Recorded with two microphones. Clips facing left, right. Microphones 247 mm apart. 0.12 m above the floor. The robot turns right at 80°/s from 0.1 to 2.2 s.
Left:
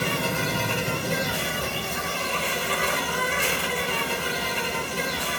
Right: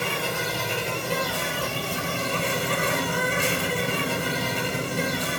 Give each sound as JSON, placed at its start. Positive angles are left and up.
{"t": 0.0, "sound": "an insect", "azimuth_deg": 65, "distance_m": 1.4}